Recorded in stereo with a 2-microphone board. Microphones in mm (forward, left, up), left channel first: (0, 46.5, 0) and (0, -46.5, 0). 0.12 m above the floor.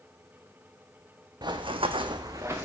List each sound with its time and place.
1.4 s running footsteps: 50° right (ahead or behind), 0.7 m; by 2.6 s 25° right (ahead or behind), 1.0 m